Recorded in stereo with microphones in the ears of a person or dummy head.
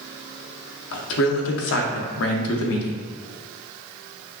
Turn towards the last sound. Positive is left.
turn(degrees=80)